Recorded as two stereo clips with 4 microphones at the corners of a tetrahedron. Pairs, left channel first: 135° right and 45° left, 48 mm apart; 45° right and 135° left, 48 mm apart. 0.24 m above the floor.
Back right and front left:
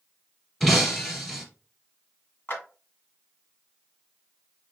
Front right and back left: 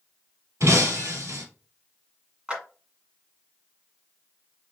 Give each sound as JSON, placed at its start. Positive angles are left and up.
{"t": 0.6, "sound": "breaking glass", "azimuth_deg": 145, "distance_m": 2.5}
{"t": 2.5, "sound": "a clap", "azimuth_deg": -160, "distance_m": 1.8}